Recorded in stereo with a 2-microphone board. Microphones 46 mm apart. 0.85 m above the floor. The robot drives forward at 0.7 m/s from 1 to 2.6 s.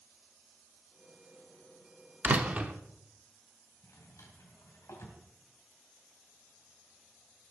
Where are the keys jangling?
I don't hear keys jangling.